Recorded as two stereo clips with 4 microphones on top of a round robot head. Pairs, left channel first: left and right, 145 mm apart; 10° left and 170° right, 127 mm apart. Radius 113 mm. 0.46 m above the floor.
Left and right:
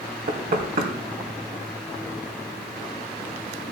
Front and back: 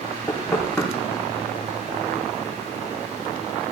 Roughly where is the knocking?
Right.